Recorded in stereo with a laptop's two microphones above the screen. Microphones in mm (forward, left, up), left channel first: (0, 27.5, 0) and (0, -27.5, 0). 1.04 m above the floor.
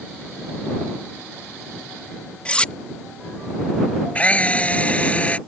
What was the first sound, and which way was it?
Cutlery clinking, 20° left (ahead or behind).